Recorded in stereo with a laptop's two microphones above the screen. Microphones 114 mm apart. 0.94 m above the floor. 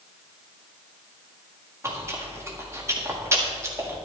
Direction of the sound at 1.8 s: 25° right (ahead or behind).